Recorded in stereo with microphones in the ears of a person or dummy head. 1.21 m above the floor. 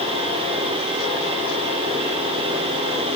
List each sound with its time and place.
Only background noise.